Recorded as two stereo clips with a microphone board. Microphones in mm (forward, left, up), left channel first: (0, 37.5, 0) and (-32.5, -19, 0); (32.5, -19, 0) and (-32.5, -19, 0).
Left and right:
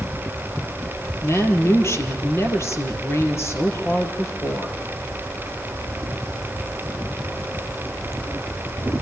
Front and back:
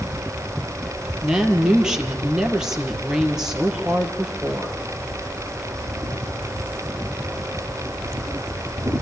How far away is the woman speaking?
About 3 m.